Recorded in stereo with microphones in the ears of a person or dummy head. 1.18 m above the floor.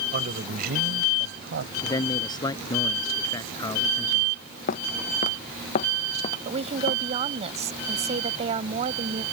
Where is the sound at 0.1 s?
45° right (ahead or behind); by 1.7 s 55° right (ahead or behind).